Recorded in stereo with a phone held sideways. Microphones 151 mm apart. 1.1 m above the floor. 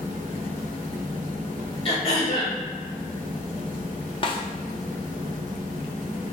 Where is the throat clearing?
35° left (ahead or behind), 1.4 m.